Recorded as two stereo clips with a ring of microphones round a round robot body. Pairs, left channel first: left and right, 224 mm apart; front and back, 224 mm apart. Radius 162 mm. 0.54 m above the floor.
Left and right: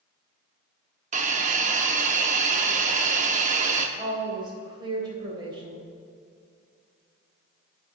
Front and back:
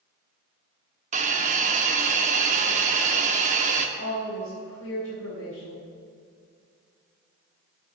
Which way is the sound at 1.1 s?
135° right.